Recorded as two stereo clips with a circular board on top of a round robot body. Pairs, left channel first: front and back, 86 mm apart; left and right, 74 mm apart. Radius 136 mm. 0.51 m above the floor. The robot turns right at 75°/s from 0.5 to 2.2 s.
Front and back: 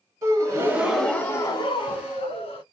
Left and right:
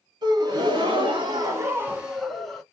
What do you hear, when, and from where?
0.2 s a gasp: 125° right, 0.8 m; by 2.6 s 5° left, 0.8 m